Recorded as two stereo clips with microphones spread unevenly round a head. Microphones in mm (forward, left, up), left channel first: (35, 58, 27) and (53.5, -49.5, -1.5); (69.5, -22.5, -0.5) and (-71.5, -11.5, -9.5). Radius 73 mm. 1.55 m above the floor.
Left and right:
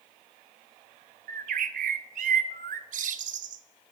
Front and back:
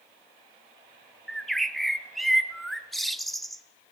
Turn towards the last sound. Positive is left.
turn(degrees=-95)